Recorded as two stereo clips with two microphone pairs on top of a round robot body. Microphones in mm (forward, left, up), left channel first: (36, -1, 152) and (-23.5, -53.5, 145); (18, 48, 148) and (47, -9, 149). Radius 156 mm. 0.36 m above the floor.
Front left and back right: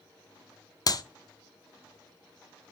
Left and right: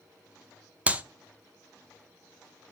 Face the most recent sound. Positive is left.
turn(degrees=5)